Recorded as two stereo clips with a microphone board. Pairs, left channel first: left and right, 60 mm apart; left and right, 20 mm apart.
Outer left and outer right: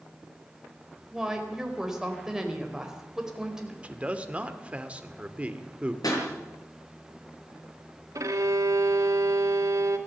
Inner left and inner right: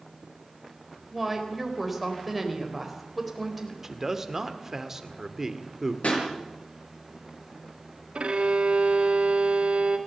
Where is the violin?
65° right (ahead or behind), 2 m.